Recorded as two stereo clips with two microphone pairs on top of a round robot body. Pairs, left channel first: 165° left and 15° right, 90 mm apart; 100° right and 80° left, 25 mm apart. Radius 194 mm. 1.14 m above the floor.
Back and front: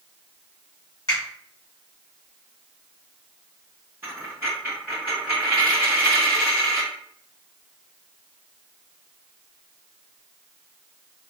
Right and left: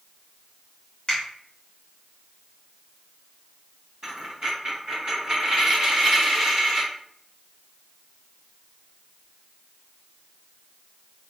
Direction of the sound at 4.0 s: 50° left.